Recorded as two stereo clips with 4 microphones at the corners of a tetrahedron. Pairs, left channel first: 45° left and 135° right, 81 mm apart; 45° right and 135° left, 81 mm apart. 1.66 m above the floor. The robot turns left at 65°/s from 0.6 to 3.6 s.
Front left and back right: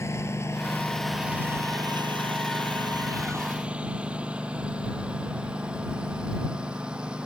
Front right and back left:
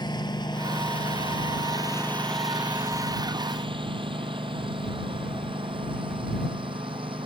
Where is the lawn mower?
10° right; by 7.3 s 145° left.